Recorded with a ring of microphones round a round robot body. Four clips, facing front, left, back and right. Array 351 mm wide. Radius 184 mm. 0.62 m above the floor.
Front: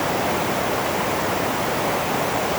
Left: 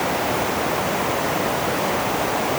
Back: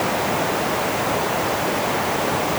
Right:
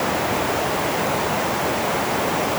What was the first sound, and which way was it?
Only background noise.